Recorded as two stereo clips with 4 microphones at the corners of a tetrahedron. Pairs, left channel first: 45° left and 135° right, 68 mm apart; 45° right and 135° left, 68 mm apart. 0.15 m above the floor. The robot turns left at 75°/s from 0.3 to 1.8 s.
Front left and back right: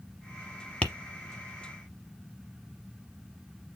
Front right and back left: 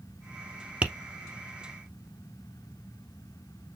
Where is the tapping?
95° left, 0.9 m; by 0.9 s 85° left, 0.9 m.